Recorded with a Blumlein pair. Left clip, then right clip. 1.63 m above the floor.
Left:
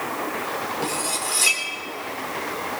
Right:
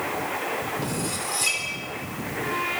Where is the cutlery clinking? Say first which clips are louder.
Left 3 dB; 15° left, 3 m.